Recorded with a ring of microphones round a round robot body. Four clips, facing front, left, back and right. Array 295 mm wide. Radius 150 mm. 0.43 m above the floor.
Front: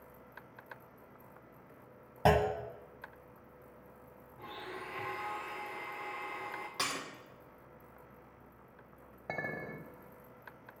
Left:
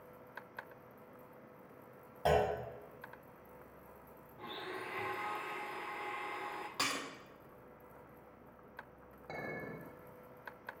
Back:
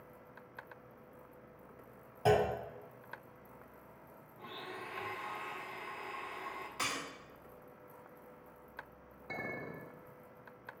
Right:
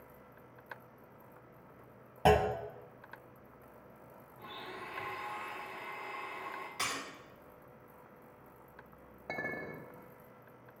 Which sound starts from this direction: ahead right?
A clunk, at 2.2 s.